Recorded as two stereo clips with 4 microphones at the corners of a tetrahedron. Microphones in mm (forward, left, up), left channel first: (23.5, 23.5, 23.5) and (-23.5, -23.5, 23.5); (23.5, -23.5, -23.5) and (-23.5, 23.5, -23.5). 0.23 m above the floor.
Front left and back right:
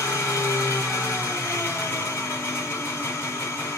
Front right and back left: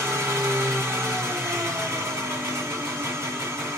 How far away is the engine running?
About 2.5 m.